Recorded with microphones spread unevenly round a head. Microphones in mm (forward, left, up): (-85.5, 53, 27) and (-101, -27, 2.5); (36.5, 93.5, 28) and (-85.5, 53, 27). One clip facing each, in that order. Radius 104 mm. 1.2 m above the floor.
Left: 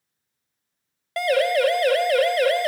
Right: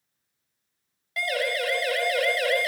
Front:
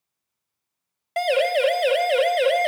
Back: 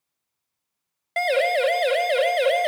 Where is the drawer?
I don't hear a drawer.